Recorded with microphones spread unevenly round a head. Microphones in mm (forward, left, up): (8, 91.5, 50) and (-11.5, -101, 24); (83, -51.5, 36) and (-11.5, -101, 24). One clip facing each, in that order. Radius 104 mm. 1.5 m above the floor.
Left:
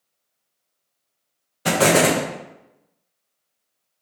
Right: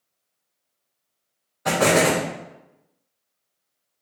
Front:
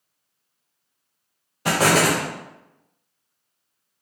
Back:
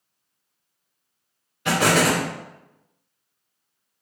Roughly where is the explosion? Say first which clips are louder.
Left 2 dB, front 1 dB; ahead left.